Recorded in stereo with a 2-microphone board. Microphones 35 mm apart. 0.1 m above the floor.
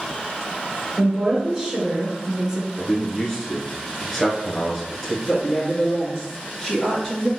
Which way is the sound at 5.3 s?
5° left (ahead or behind).